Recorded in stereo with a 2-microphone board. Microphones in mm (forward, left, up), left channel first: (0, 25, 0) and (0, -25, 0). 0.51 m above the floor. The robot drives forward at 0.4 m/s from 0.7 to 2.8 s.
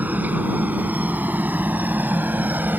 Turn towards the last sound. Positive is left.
turn(degrees=-35)  # may be behind; listen again after turning